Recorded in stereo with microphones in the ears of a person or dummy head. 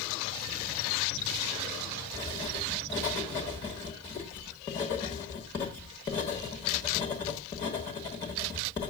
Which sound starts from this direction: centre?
Writing, at 2.1 s.